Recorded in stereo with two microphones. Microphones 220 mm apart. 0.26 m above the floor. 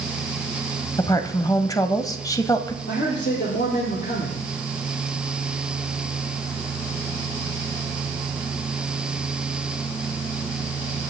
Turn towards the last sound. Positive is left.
turn(degrees=55)  # may be behind; listen again after turning